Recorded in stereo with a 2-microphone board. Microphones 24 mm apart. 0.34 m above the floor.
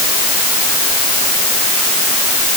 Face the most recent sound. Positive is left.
No sound to turn to.